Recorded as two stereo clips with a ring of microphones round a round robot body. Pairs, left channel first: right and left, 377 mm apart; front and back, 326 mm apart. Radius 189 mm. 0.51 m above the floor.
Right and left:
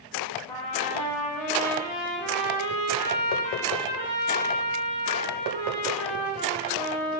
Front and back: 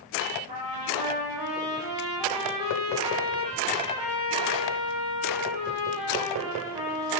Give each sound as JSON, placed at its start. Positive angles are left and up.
{"t": 0.5, "sound": "a trumpet", "azimuth_deg": -125, "distance_m": 6.5}